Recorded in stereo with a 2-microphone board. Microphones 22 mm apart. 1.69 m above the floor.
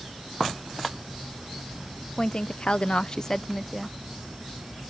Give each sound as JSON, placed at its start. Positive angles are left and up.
{"t": 2.2, "sound": "a woman speaking", "side_deg": 45}